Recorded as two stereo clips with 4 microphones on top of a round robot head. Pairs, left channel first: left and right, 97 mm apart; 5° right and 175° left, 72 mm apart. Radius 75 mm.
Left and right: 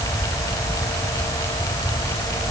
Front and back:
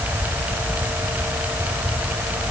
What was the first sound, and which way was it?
Only background noise.